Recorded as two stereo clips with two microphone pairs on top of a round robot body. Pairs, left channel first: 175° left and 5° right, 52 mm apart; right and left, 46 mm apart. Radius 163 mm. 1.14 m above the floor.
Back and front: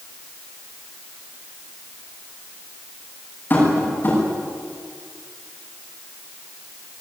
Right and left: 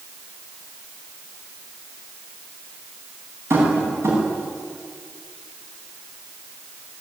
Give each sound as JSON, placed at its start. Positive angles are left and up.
{"t": 3.5, "sound": "tapping", "azimuth_deg": 120, "distance_m": 9.5}